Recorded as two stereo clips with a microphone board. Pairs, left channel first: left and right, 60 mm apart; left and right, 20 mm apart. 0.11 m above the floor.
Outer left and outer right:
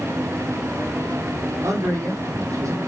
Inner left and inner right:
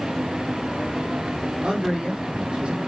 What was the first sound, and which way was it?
A man speaking, 65° right (ahead or behind).